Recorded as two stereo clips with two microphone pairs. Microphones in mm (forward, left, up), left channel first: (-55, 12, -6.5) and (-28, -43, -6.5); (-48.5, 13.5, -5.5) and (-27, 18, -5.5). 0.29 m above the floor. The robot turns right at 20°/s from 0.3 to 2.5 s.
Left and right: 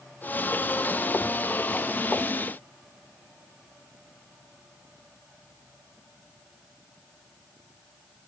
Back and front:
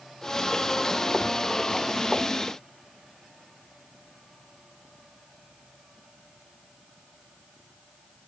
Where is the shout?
No shout in this recording.